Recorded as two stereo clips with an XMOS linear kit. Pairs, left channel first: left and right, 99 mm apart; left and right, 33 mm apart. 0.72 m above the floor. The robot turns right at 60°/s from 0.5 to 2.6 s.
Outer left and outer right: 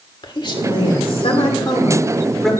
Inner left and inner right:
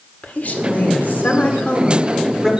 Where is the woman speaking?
60° left, 2 m; by 2.5 s straight behind, 2 m.